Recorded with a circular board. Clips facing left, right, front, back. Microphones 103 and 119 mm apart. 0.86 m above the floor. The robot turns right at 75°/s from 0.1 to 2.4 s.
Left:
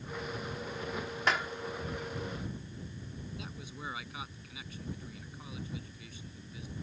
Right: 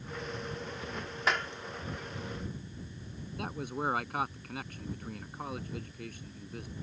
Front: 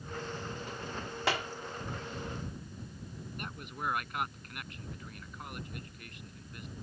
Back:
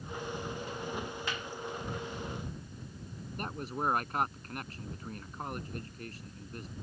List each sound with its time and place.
1.3 s a clap: straight ahead; by 1.5 s 15° left
3.4 s a man speaking: 125° right